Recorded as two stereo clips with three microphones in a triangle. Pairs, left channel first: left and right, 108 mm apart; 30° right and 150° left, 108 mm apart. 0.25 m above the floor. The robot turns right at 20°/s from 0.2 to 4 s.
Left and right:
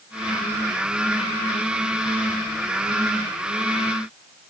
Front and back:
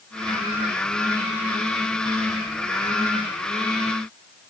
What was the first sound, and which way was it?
Only background noise.